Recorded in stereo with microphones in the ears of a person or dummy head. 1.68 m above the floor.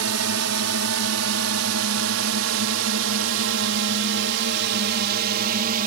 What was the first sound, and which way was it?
A drone, 85° right.